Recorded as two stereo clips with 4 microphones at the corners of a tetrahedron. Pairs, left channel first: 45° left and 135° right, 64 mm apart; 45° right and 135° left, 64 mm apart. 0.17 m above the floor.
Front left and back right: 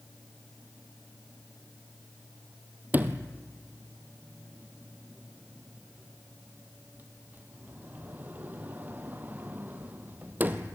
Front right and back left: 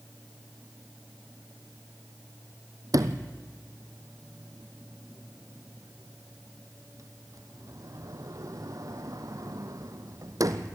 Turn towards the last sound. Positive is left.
turn(degrees=165)